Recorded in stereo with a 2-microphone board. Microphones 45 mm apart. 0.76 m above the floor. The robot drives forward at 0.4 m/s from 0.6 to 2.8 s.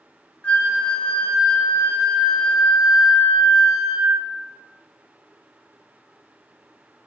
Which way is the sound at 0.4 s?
25° left (ahead or behind).